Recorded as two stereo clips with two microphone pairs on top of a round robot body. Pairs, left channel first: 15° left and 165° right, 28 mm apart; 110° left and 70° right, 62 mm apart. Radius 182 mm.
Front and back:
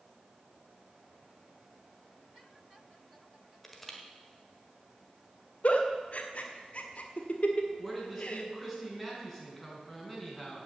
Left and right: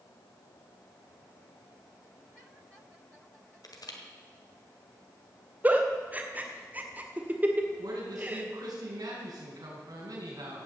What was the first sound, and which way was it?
Crushing, 100° left.